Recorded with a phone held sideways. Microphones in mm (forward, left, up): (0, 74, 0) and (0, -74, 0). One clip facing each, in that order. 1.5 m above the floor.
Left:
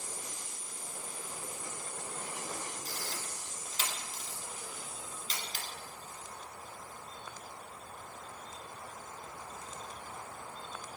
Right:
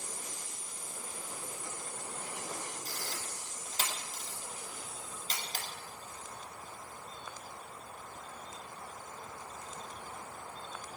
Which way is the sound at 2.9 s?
45° right (ahead or behind).